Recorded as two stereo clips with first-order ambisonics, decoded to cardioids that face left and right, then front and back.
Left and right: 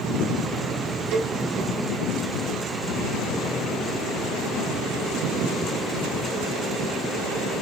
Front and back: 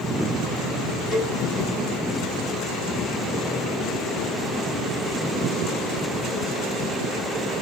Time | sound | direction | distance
1.1 | a cowbell | 95° right | 1.5 m